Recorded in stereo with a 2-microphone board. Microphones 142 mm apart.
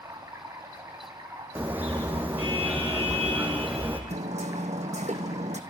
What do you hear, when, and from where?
0.0 s running water: 20° right (ahead or behind), 5 m
1.6 s a car horn: 10° right (ahead or behind), 4.5 m
4.1 s hammering: 55° right (ahead or behind), 2.5 m